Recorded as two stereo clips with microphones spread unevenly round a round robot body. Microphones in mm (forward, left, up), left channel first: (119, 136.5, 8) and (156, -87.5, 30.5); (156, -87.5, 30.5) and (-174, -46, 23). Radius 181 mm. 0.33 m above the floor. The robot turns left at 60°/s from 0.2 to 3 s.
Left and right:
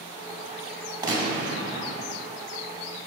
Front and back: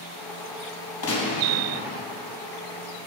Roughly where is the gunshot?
Ahead.